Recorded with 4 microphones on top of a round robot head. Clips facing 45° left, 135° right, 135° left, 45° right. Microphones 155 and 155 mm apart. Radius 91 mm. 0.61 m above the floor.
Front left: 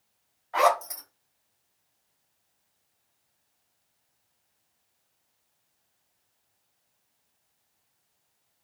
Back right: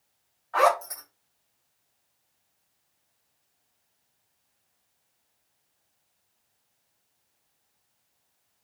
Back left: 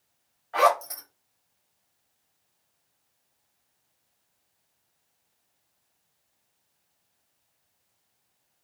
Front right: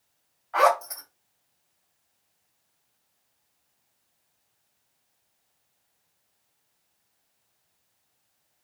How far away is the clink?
I don't hear a clink.